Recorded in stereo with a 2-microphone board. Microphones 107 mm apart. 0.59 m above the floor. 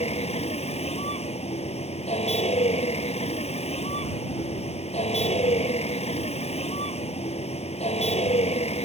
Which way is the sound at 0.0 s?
80° left.